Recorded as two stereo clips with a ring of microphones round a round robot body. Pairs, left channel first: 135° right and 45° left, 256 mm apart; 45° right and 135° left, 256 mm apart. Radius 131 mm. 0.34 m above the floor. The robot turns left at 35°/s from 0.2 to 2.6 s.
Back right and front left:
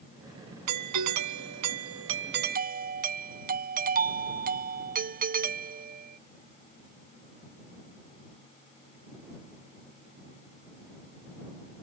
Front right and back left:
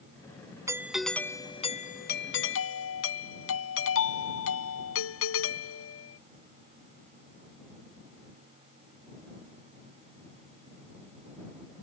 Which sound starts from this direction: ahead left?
A doorbell, at 0.7 s.